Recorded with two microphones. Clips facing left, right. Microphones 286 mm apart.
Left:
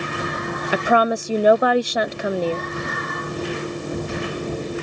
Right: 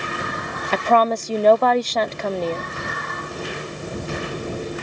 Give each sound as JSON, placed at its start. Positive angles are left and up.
{"t": 0.7, "sound": "a woman speaking", "side_deg": 10}